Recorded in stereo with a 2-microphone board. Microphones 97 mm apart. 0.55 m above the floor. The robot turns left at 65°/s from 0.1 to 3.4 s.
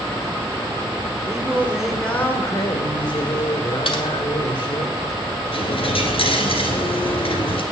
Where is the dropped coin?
70° left (ahead or behind), 1.8 m.